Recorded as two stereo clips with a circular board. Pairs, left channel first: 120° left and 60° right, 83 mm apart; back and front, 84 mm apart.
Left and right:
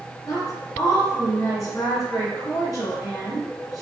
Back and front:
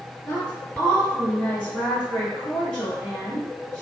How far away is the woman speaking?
About 1.9 m.